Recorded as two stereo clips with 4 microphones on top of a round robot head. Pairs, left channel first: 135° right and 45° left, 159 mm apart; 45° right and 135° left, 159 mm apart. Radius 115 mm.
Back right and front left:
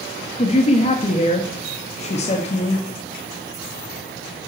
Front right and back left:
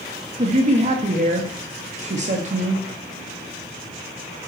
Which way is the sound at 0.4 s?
Straight behind.